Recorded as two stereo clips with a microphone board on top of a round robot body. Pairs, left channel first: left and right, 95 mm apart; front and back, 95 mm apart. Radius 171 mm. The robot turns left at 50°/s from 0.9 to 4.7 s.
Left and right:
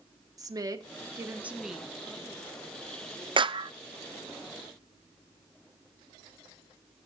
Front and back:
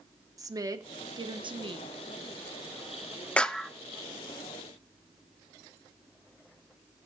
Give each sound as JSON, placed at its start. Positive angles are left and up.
{"t": 0.4, "sound": "a woman speaking", "azimuth_deg": -135, "distance_m": 1.3}
{"t": 3.4, "sound": "a clap", "azimuth_deg": -75, "distance_m": 0.7}